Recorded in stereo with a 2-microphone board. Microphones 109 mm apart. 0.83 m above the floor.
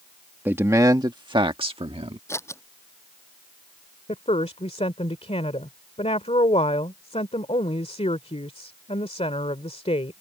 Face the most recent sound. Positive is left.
turn(degrees=70)  # may be behind; listen again after turning